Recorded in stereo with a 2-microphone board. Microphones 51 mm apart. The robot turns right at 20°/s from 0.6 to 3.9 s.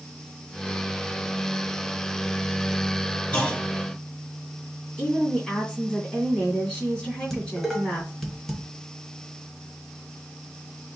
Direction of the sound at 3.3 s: 20° left (ahead or behind).